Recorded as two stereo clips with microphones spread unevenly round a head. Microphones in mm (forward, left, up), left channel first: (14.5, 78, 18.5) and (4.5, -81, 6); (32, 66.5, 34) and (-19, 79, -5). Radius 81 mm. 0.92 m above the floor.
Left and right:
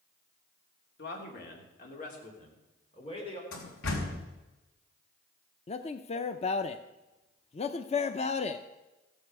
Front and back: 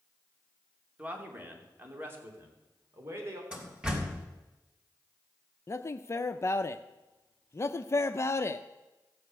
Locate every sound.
1.0 s a man speaking: 115° left, 3 m; by 3.4 s 150° left, 4 m
3.5 s a door slam: 95° left, 3.5 m
5.7 s a man speaking: 60° left, 0.6 m